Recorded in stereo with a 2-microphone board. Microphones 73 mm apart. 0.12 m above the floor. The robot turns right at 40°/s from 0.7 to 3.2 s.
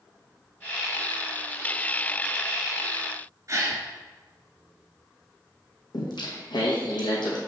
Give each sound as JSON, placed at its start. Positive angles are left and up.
{"t": 3.5, "sound": "a gasp", "side_deg": -45, "distance_m": 1.5}
{"t": 5.9, "sound": "singing", "side_deg": 80, "distance_m": 2.0}